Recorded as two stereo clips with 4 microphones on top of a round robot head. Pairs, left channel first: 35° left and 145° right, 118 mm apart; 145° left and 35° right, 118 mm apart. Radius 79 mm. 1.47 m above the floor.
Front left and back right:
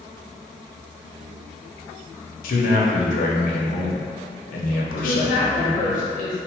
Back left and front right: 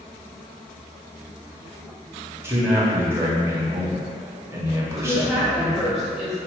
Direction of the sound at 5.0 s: 55° left.